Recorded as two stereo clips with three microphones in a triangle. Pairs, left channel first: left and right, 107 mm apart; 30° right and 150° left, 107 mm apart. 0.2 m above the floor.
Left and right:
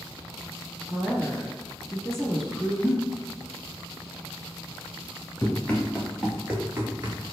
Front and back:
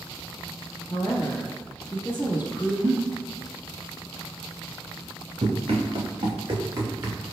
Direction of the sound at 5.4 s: 160° left.